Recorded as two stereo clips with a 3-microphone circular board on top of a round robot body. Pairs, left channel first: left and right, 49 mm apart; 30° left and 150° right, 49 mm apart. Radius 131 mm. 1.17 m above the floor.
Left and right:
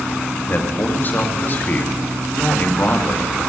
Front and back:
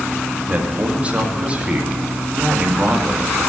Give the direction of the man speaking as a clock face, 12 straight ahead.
7 o'clock.